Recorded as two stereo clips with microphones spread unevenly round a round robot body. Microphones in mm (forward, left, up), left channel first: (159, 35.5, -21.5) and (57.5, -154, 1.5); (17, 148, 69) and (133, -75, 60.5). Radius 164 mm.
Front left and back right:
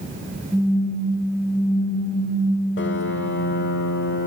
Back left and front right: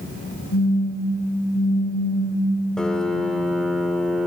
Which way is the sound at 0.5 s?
160° left.